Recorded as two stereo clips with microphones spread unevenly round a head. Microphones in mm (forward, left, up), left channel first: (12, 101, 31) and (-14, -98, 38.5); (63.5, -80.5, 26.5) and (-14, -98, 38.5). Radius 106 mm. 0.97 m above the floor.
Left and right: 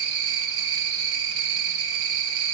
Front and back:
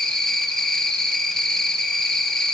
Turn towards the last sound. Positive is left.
turn(degrees=-70)